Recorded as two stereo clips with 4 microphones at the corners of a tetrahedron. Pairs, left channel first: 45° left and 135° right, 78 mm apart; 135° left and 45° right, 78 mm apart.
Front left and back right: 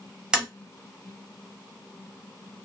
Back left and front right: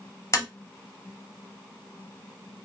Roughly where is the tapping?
Behind left.